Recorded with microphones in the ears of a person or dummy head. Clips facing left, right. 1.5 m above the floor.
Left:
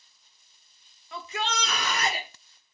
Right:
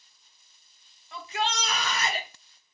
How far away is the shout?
About 0.8 m.